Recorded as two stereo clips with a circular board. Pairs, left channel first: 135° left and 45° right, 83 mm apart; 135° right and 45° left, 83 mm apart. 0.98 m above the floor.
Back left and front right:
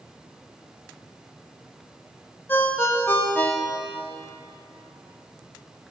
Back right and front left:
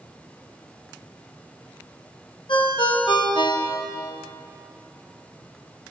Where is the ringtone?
160° right, 0.8 m.